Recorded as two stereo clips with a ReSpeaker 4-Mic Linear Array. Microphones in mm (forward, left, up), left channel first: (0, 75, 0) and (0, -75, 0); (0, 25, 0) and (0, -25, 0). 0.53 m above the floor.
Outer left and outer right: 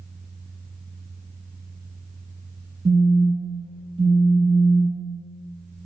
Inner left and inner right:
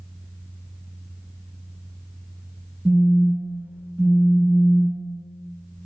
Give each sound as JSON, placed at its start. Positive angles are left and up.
{"t": 2.9, "sound": "a phone buzzing", "side_deg": -40, "distance_m": 0.7}